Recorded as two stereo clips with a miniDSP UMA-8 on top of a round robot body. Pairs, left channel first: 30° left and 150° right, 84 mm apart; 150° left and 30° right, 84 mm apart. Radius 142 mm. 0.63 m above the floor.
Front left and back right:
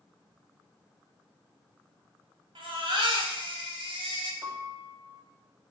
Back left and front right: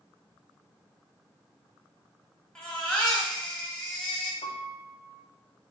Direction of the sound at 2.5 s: 130° right.